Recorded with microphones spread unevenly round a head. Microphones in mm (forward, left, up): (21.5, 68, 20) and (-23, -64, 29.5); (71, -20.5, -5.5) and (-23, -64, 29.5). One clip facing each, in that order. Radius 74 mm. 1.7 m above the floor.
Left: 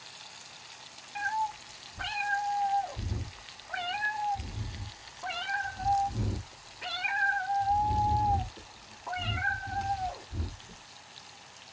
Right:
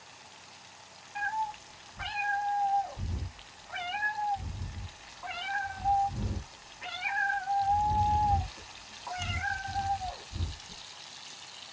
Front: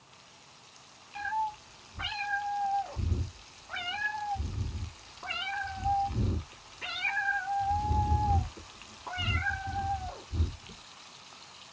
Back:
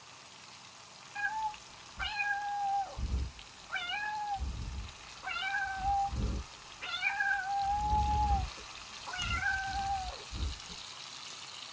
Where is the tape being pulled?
I don't hear tape being pulled.